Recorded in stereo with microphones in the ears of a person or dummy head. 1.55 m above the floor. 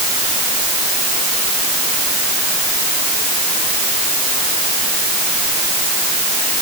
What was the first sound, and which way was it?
Only background noise.